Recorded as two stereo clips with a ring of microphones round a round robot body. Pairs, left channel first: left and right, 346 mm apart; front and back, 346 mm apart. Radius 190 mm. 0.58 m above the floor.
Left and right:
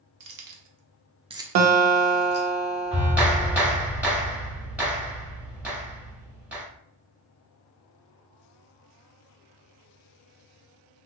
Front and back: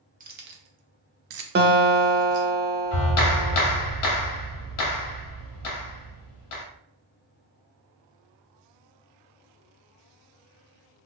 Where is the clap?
5° right, 1.0 m.